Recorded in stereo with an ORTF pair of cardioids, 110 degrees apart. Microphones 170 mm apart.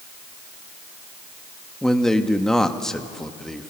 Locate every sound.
1.8 s a man speaking: 5° left, 1.3 m